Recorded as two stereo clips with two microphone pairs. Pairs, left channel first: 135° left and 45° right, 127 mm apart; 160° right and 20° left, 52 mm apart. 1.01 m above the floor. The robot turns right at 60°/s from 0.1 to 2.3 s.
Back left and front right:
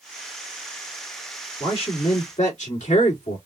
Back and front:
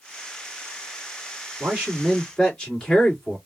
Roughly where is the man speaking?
Left.